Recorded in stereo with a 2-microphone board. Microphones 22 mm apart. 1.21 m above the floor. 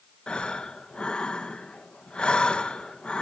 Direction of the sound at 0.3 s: 50° left (ahead or behind).